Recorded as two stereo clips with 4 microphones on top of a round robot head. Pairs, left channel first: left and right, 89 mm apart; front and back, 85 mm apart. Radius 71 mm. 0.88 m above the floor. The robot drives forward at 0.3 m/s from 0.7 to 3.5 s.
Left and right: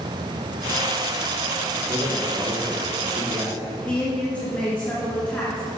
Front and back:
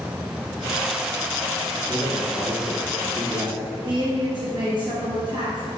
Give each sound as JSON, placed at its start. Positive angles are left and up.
{"t": 1.8, "sound": "a man speaking", "azimuth_deg": -110, "distance_m": 2.5}
{"t": 3.9, "sound": "a woman speaking", "azimuth_deg": 165, "distance_m": 1.8}